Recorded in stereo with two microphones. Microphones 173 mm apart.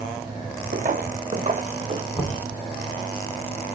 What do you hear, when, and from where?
0.7 s footsteps: 55° right (ahead or behind), 1.8 m; by 2.0 s 35° right (ahead or behind), 1.3 m
2.1 s knocking: 10° left (ahead or behind), 2.5 m